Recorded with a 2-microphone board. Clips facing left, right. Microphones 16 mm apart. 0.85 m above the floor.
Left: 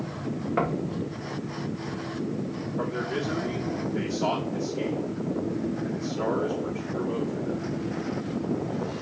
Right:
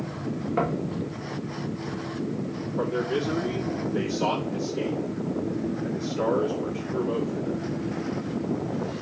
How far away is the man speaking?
About 1.9 m.